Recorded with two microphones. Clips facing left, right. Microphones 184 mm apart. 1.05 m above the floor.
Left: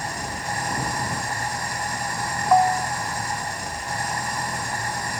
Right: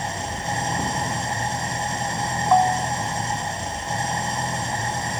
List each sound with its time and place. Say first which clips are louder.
0.0 s an engine running: right 2 dB; 25° right (ahead or behind)
2.5 s a bell: even; 5° left (ahead or behind)